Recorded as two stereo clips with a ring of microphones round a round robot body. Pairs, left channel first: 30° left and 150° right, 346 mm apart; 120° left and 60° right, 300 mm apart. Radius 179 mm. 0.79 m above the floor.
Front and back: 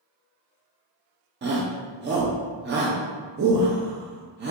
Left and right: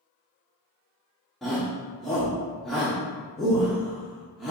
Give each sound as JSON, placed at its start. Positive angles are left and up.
{"t": 1.4, "sound": "a shout", "azimuth_deg": -150, "distance_m": 0.6}